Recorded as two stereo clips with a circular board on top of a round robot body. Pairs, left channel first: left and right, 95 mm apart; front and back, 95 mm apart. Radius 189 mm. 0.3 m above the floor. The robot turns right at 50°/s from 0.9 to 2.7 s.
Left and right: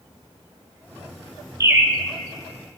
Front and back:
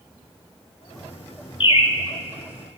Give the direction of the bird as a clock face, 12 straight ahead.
1 o'clock.